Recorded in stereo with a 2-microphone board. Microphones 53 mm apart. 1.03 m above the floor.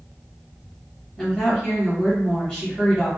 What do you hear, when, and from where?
1.2 s a woman speaking: 15° left (ahead or behind), 1.2 m